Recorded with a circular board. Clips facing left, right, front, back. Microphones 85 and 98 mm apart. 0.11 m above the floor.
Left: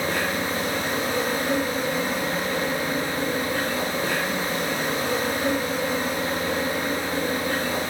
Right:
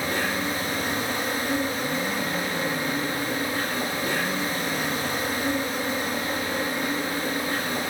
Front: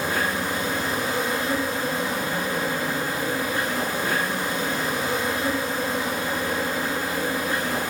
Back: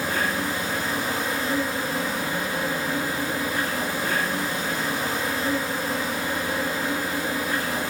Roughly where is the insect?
Left.